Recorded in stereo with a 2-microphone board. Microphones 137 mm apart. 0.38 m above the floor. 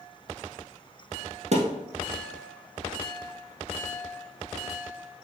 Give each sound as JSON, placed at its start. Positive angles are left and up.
{"t": 1.5, "sound": "a thud", "side_deg": -55, "distance_m": 0.8}